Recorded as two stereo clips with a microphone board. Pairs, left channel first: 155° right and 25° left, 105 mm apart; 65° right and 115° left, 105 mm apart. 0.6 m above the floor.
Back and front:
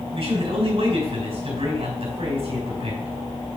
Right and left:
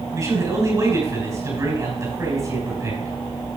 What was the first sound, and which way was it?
A man speaking, 55° left.